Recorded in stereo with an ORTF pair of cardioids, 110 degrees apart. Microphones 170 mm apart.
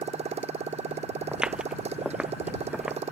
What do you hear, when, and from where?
0.0 s a motorcycle: 40° right
1.3 s footsteps: 5° right